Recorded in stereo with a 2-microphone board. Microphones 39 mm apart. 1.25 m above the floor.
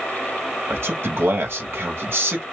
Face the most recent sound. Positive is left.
turn(degrees=-85)